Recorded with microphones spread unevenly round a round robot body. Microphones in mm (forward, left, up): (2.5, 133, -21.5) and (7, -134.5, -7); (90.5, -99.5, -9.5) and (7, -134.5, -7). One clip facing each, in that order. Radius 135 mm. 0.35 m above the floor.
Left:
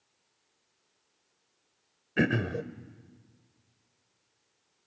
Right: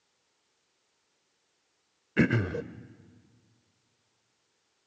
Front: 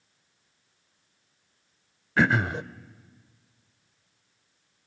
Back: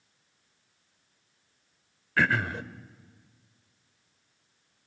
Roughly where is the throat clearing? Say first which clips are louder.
Right 2 dB, front 3 dB; ahead.